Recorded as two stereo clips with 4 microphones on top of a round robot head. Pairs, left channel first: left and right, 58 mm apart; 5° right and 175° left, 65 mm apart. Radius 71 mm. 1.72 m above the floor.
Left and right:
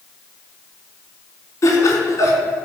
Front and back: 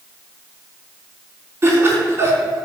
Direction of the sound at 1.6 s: 115° left.